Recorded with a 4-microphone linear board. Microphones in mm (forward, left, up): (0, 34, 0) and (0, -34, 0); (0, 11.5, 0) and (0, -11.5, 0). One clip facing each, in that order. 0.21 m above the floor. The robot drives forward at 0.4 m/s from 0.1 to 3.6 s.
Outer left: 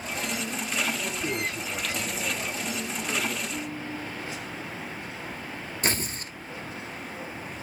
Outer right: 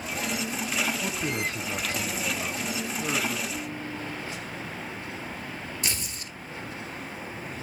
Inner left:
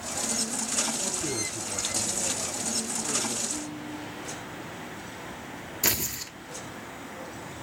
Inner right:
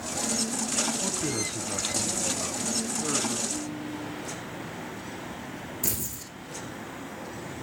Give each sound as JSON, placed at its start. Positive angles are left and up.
{"t": 1.0, "sound": "a man speaking", "side_deg": -40, "distance_m": 1.3}
{"t": 3.5, "sound": "a ringtone", "side_deg": 0, "distance_m": 3.5}
{"t": 5.8, "sound": "tearing paper", "side_deg": 40, "distance_m": 0.8}